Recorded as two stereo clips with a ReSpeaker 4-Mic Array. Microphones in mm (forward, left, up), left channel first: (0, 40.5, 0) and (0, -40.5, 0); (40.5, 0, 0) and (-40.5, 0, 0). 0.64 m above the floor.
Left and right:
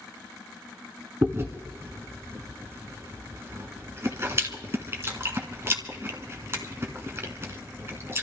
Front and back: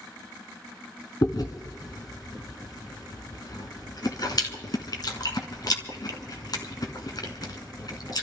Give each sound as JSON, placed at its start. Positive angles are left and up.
{"t": 1.2, "sound": "chewing", "azimuth_deg": -35, "distance_m": 1.4}